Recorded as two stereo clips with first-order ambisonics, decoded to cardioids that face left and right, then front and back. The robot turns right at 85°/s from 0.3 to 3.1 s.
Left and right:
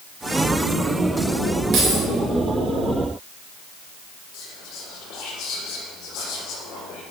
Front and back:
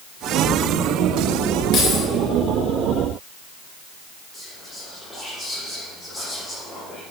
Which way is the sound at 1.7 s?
40° right.